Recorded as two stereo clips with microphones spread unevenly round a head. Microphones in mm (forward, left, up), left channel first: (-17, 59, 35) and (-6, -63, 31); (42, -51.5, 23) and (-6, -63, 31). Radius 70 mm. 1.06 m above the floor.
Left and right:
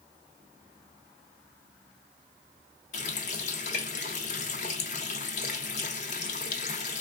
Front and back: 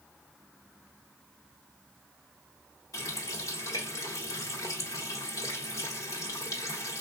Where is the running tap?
60° left, 0.7 m.